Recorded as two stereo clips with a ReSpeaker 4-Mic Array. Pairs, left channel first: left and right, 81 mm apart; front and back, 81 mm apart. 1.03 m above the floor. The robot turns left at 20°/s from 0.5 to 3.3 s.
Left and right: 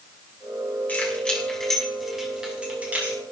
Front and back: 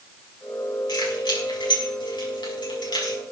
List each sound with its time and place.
0.9 s keys jangling: 20° left, 5 m; by 3.2 s 25° right, 5 m